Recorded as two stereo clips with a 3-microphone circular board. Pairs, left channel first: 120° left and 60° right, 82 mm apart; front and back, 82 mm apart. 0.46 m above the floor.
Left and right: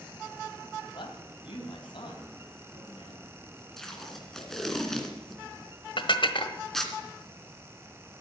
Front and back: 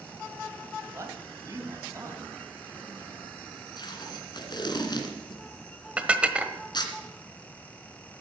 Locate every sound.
0.9 s a man speaking: 130° left, 3 m
3.8 s tape being pulled: 35° left, 2 m
6.0 s dishes clattering: 105° left, 1.2 m